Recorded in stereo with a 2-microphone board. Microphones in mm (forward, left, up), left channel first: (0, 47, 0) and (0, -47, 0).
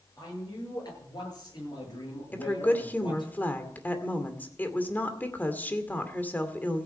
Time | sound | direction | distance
0.2 | a man speaking | 40° left (ahead or behind) | 9.5 m
2.3 | a woman speaking | 20° left (ahead or behind) | 2 m